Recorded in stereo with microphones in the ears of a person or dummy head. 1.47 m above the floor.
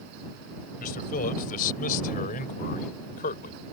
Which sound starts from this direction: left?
A man speaking, at 0.8 s.